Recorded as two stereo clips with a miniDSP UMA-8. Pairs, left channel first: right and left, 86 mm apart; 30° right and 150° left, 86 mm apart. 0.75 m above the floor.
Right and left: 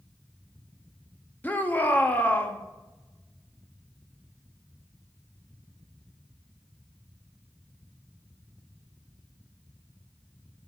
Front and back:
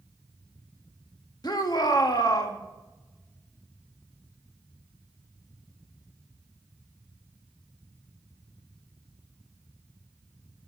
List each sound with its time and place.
1.4 s a shout: 25° right, 1.1 m